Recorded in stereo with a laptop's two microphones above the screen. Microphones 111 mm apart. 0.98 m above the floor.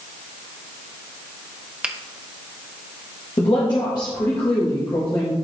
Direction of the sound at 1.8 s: 10° right (ahead or behind).